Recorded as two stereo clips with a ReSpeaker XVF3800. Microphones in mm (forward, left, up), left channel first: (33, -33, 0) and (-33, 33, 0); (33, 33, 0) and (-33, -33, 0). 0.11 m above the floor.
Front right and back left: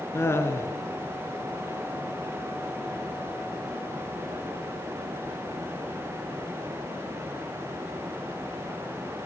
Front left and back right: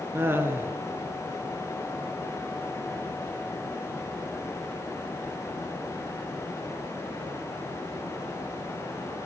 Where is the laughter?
85° right, 1.5 m.